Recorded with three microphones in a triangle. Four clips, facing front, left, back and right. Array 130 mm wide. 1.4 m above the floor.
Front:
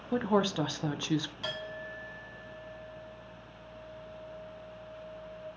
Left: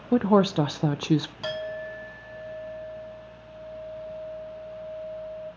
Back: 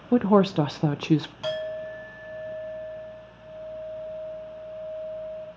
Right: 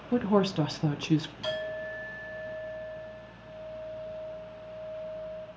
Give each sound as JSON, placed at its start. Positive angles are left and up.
{"t": 0.1, "sound": "a woman speaking", "azimuth_deg": 145, "distance_m": 0.7}
{"t": 1.4, "sound": "a clink", "azimuth_deg": 125, "distance_m": 3.0}